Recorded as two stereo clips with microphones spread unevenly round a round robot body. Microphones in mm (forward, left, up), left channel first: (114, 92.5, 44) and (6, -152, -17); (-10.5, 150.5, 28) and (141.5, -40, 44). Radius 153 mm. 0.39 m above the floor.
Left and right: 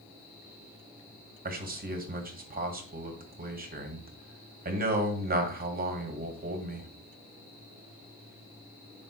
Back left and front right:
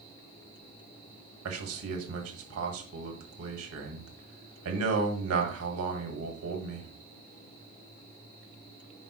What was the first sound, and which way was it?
A man speaking, 70° right.